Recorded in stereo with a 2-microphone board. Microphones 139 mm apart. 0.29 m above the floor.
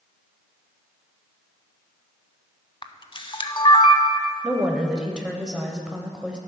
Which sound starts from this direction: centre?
A woman speaking, at 4.4 s.